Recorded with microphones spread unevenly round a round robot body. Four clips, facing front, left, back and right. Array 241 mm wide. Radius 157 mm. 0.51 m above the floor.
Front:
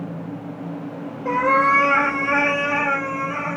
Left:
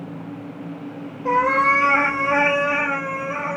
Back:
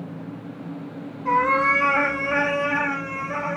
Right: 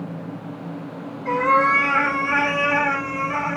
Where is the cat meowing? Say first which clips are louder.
Even, front 2 dB; 115° left, 1.2 m; by 3.6 s 130° right, 0.6 m.